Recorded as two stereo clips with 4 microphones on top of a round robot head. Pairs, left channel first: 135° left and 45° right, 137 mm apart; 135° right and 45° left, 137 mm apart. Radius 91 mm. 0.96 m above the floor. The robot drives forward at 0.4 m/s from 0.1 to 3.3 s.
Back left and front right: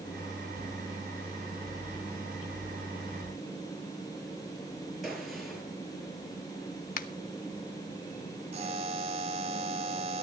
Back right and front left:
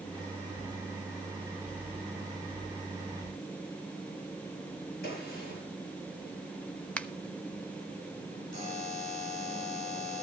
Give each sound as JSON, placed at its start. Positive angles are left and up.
{"t": 5.0, "sound": "a gunshot", "azimuth_deg": -135, "distance_m": 6.0}
{"t": 7.0, "sound": "a finger snap", "azimuth_deg": 145, "distance_m": 1.1}
{"t": 8.5, "sound": "a buzzer", "azimuth_deg": -90, "distance_m": 4.0}